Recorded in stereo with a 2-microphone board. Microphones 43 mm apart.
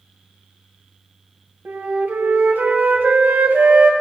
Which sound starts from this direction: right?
A flute, at 1.6 s.